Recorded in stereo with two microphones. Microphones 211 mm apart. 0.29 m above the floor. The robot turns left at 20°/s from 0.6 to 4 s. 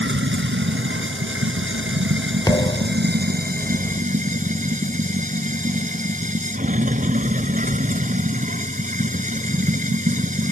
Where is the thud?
20° left (ahead or behind); by 3.1 s 30° left (ahead or behind).